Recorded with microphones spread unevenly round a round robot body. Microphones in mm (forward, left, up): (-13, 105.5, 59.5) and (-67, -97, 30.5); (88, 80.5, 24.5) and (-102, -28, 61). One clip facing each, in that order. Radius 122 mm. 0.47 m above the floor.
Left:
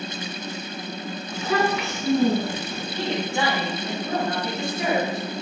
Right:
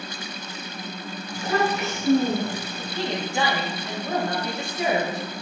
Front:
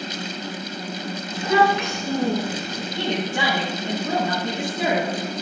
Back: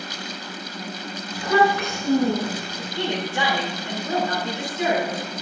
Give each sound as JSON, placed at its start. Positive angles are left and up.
{"t": 1.3, "sound": "a child speaking", "azimuth_deg": 100, "distance_m": 5.0}
{"t": 2.8, "sound": "a woman speaking", "azimuth_deg": -30, "distance_m": 3.0}